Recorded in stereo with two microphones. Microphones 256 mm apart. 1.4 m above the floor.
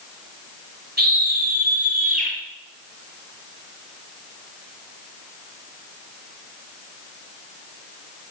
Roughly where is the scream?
Right.